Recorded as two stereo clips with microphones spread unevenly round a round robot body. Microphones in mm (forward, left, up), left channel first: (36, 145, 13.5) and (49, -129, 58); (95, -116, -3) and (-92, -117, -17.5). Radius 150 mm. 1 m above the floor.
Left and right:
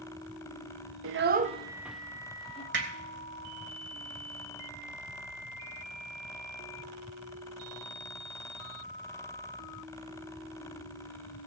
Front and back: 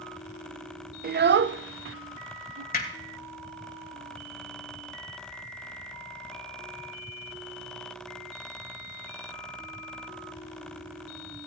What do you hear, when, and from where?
1.0 s a child speaking: 135° right, 0.7 m; by 2.6 s 165° left, 1.0 m
2.7 s hammering: 40° right, 2.5 m